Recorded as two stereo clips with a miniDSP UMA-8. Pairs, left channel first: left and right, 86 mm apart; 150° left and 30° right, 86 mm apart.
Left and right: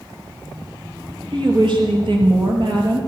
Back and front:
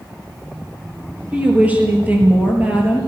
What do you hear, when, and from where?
1.3 s a woman speaking: 100° right, 4.5 m